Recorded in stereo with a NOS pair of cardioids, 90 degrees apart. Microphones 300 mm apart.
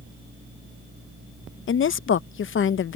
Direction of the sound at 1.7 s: 40° left.